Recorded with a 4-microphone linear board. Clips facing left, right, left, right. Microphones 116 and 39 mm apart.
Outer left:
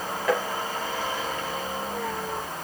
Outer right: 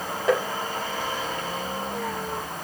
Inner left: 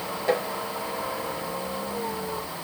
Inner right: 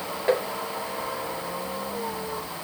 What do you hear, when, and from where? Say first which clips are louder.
0.3 s tapping: outer right 3 dB, inner right 1 dB; 25° right (ahead or behind), 3.5 m